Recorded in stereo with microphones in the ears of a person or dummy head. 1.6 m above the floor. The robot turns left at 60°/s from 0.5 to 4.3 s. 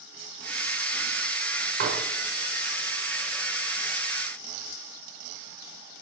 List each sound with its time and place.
1.8 s dishes clattering: 50° right (ahead or behind), 3.5 m; by 2.0 s 35° right (ahead or behind), 3.5 m